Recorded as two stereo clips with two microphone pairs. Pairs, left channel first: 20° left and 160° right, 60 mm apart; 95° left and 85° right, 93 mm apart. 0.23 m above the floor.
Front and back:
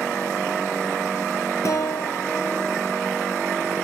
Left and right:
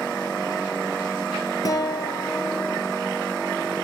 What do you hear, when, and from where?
1.6 s a guitar: 50° left, 0.7 m